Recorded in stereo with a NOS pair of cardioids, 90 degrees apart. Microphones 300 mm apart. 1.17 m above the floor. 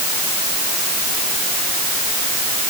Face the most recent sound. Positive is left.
No sound to turn to.